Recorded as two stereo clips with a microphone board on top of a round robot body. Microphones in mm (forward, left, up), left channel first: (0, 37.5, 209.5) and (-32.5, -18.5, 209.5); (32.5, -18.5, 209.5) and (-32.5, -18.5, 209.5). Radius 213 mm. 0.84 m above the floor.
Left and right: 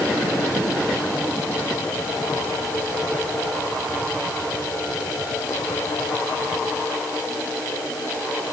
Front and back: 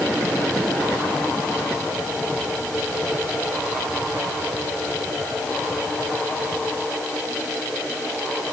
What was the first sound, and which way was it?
Only background noise.